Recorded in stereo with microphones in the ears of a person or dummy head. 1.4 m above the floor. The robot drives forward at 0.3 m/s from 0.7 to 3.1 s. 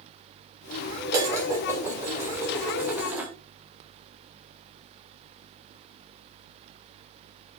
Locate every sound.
1.1 s dishes clattering: 15° right (ahead or behind), 0.5 m; by 3.3 s 5° right (ahead or behind), 1.0 m